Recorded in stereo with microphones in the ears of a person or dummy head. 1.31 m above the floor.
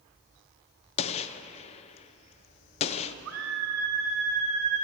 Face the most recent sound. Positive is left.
turn(degrees=-75)  # may be behind; listen again after turning